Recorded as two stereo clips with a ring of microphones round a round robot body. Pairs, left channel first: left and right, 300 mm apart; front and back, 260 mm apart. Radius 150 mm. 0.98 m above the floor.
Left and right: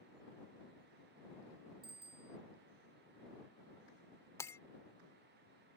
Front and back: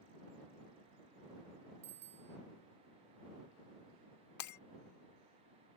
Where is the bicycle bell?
165° right.